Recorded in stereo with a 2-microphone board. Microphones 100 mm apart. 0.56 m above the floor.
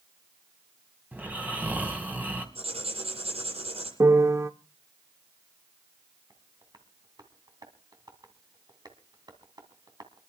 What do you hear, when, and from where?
1.1 s snoring: 15° right (ahead or behind), 3 m
2.5 s writing: 85° right, 9 m
4.0 s a piano: 30° right (ahead or behind), 0.8 m
6.3 s tapping: 45° right (ahead or behind), 2.5 m